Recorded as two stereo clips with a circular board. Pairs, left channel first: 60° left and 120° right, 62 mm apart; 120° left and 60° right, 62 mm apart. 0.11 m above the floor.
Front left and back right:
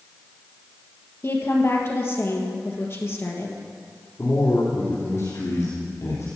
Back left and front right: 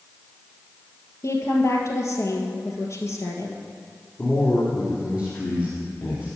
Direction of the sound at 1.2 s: 95° left.